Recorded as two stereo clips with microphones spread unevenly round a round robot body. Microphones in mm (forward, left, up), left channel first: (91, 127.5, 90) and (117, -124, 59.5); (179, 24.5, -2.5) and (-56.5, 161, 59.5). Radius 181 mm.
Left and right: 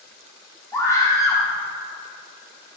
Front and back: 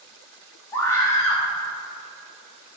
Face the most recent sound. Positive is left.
turn(degrees=15)